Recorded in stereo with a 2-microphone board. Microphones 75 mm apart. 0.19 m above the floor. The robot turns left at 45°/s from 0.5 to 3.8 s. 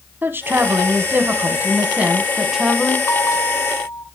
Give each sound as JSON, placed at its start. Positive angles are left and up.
{"t": 0.2, "sound": "a woman speaking", "side_deg": -30, "distance_m": 1.1}
{"t": 3.1, "sound": "a bell", "azimuth_deg": 95, "distance_m": 1.2}